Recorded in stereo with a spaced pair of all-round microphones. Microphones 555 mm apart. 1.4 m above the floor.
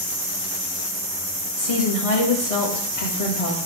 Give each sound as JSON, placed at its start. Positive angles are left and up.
{"t": 1.6, "sound": "a woman speaking", "side_deg": 75, "distance_m": 1.7}